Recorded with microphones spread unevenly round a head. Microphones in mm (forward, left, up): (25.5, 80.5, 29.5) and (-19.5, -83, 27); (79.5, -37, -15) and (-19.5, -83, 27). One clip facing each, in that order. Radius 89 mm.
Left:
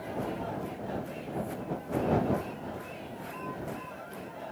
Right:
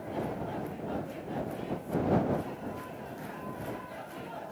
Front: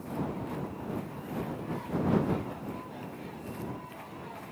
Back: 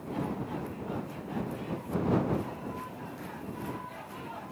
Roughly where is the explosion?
No explosion in this recording.